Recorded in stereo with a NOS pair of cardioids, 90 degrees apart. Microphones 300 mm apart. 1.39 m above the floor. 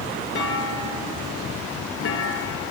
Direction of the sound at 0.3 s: 50° left.